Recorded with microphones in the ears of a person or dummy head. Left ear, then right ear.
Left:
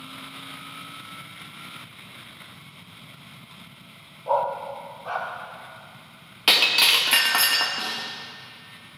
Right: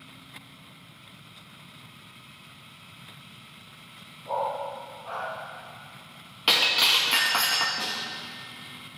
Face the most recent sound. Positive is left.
turn(degrees=20)  # may be behind; listen again after turning